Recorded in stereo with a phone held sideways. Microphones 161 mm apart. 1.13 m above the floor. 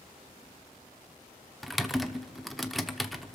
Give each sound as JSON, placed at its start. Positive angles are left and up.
{"t": 1.6, "sound": "typing on a keyboard", "side_deg": 0, "distance_m": 0.8}